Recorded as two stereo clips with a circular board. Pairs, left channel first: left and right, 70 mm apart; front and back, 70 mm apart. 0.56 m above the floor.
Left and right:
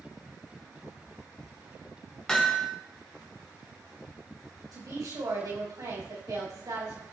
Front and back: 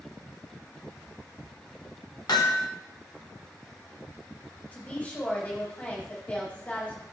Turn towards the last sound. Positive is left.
turn(degrees=-65)